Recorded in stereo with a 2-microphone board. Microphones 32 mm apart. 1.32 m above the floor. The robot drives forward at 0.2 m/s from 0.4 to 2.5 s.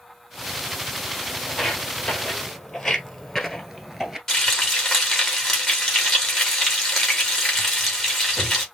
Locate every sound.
1.5 s footsteps: 15° left (ahead or behind), 2.5 m; by 4.2 s 10° right (ahead or behind), 1.3 m
4.3 s frying: 10° left (ahead or behind), 2.5 m